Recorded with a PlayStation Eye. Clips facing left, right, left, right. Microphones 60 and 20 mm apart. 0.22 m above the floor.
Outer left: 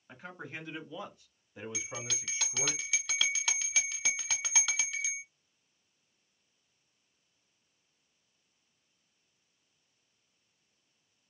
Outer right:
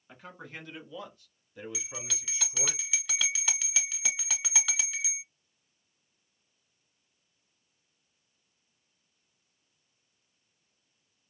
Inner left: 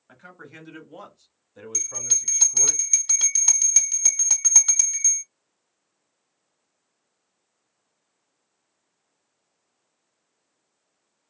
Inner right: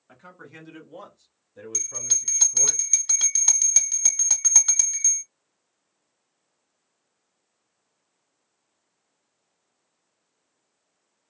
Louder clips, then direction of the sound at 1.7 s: Outer left 1 dB, inner left 1 dB; 5° right (ahead or behind).